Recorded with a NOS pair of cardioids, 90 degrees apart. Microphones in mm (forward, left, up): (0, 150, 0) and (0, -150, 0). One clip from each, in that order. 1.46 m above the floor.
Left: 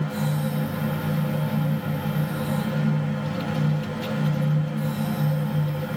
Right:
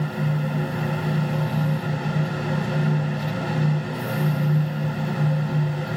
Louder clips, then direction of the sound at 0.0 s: Even; 55° right.